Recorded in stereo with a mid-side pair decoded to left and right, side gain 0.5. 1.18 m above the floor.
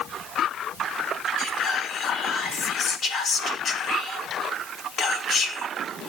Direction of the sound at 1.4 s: 55° left.